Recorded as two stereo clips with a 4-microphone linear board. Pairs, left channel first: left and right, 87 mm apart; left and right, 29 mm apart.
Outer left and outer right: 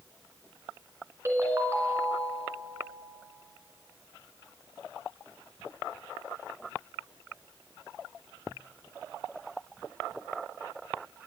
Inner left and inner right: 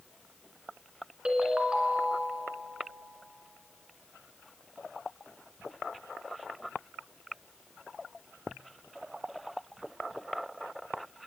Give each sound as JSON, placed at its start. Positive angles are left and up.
{"t": 1.2, "sound": "a ringtone", "side_deg": -30, "distance_m": 2.5}